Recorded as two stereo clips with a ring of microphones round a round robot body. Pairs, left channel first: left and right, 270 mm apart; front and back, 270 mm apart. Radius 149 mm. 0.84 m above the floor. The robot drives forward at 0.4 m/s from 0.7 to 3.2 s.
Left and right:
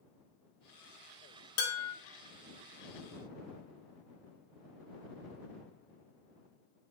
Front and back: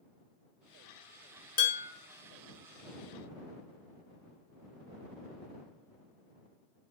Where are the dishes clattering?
60° left, 0.8 m; by 1.9 s 70° left, 0.7 m.